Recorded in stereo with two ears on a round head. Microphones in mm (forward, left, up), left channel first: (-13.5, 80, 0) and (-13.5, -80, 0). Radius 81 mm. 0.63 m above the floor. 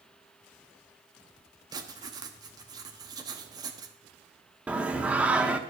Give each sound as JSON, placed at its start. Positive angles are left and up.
{"t": 1.7, "sound": "writing", "side_deg": -25, "distance_m": 1.1}
{"t": 4.7, "sound": "singing", "side_deg": -10, "distance_m": 0.7}